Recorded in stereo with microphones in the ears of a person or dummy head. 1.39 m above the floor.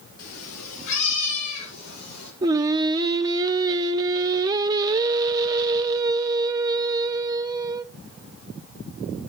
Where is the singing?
20° right (ahead or behind), 0.9 m.